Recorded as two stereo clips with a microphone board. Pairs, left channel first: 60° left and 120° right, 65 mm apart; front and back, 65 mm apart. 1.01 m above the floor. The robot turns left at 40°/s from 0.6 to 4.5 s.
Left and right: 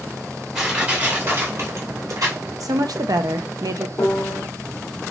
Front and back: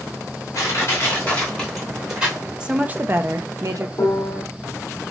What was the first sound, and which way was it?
Crushing, 40° right.